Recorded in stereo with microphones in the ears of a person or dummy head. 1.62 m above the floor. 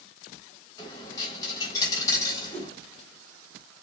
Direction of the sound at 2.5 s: 5° left (ahead or behind).